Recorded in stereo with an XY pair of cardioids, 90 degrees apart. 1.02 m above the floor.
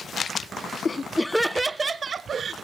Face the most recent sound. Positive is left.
turn(degrees=-55)